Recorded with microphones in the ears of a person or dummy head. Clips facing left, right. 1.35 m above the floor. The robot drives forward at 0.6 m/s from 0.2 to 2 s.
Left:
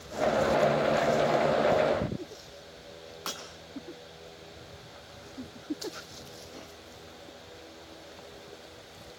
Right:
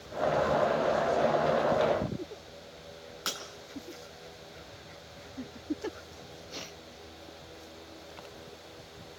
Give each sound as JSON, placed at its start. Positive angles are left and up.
{"t": 3.3, "sound": "breaking glass", "side_deg": -15, "distance_m": 3.0}